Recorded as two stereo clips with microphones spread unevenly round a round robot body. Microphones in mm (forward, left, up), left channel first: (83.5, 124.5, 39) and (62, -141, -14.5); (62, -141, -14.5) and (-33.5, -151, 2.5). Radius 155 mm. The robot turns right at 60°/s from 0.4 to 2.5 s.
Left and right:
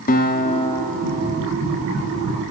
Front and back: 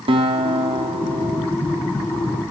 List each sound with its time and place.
0.1 s a guitar: 150° left, 0.9 m; by 1.5 s 145° right, 0.9 m